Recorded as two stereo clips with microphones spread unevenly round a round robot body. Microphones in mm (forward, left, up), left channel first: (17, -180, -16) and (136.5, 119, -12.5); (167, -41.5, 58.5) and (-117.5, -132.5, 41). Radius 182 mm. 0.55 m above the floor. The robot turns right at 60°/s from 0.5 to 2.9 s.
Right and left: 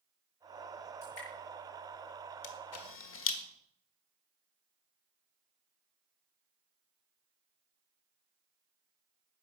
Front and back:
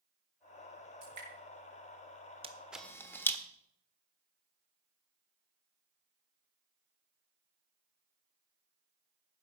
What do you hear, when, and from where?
1.0 s dripping: 150° right, 7.5 m; by 1.3 s 130° right, 7.5 m
2.4 s a camera shutter: 95° right, 1.6 m; by 3.4 s 65° right, 1.6 m